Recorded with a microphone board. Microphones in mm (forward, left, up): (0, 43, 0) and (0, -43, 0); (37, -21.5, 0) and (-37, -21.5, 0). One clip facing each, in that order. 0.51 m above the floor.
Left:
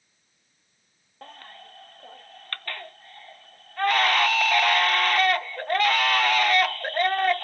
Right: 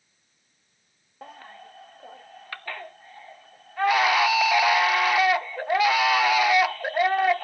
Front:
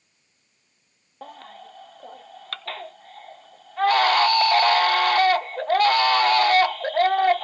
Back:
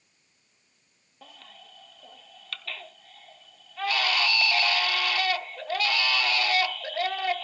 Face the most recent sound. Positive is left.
turn(degrees=-10)